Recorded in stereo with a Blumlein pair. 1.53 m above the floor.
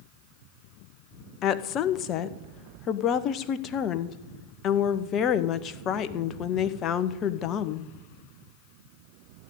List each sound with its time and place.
1.4 s a woman speaking: 30° left, 1.1 m